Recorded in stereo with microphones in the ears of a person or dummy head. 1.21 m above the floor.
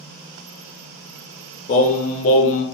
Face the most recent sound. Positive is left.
turn(degrees=35)  # may be behind; listen again after turning